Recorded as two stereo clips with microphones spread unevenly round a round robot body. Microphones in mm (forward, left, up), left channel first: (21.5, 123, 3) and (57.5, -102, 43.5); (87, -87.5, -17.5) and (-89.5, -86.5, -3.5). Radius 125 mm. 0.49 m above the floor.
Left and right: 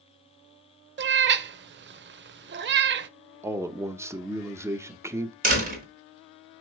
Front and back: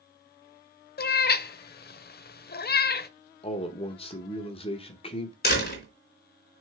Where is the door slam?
30° right, 3.5 m.